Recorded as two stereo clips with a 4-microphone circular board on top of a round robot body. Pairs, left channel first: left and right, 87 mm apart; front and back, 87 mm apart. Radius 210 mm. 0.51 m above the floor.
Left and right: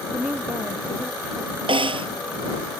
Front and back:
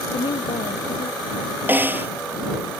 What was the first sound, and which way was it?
A woman speaking, 10° right.